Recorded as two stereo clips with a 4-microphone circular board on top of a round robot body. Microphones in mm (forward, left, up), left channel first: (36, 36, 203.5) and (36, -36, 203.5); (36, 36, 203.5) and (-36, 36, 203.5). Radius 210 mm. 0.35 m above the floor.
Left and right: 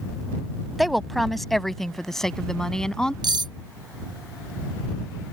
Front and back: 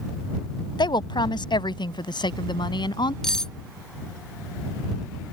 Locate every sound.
0.8 s a woman speaking: straight ahead; by 3.1 s 10° left
3.2 s cutlery clinking: 80° right